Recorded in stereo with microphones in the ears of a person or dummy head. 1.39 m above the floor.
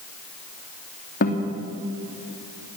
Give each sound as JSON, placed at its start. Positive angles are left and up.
{"t": 1.2, "sound": "a guitar", "side_deg": 50, "distance_m": 2.5}